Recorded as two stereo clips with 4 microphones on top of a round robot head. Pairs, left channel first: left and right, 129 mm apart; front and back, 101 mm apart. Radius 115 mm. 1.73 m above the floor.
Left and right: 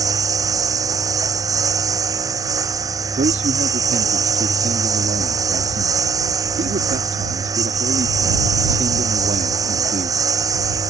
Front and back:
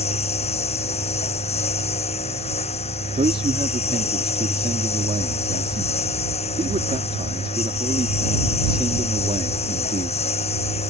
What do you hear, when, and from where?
0.0 s a lawn mower: 25° right
3.2 s a man speaking: 135° right